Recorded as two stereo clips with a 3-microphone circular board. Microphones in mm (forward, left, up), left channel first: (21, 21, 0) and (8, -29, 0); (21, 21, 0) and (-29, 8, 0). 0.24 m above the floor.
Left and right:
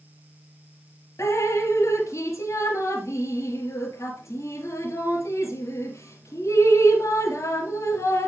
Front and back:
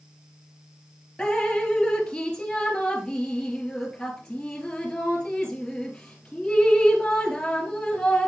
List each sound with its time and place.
1.2 s dripping: 90° left, 2 m